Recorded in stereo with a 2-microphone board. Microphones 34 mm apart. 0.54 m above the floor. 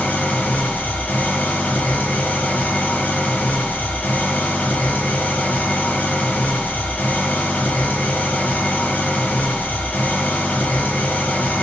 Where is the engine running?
60° left (ahead or behind), 0.9 m.